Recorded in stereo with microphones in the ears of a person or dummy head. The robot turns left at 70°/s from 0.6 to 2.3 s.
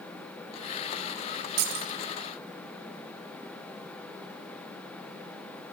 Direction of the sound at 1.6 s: 65° right (ahead or behind).